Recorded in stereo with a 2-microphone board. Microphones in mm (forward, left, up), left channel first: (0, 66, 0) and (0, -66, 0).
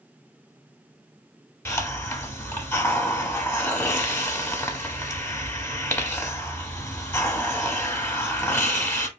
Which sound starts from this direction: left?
A hiss, at 1.6 s.